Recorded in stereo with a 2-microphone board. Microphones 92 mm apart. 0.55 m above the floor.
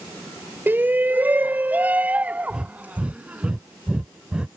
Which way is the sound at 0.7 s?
20° right (ahead or behind).